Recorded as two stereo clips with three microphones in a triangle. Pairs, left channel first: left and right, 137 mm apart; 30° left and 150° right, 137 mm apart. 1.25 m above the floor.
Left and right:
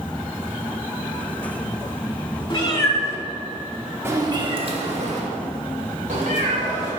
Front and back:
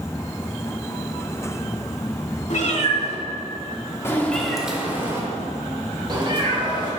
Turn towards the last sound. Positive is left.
turn(degrees=-100)